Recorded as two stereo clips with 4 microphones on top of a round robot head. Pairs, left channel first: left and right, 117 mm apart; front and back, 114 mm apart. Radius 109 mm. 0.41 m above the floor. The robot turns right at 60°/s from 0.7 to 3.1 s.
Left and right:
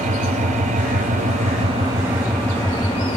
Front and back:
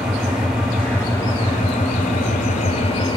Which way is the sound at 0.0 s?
100° right.